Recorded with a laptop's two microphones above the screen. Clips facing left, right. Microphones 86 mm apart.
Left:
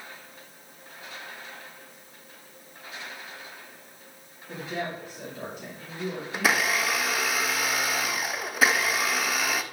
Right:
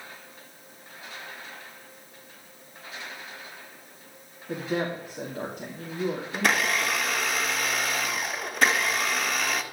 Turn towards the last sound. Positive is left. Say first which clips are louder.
# left 1 dB
turn(degrees=5)  # may be behind; listen again after turning